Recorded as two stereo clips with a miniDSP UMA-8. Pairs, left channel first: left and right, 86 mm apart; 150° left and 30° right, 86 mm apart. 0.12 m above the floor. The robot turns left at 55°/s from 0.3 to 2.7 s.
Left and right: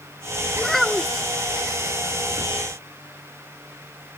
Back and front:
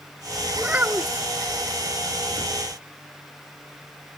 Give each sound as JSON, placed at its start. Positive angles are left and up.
{"t": 0.6, "sound": "a child speaking", "azimuth_deg": 15}